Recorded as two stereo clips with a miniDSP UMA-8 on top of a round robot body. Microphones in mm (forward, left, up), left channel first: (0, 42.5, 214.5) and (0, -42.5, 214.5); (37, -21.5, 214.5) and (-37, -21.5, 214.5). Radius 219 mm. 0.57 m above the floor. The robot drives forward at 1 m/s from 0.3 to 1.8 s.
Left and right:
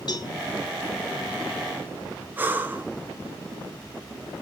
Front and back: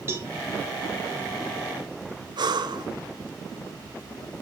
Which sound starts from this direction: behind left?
A cowbell, at 0.1 s.